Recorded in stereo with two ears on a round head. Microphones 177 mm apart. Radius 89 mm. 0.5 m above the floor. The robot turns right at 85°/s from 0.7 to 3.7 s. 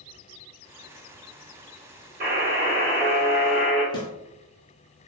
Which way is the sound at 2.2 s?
120° right.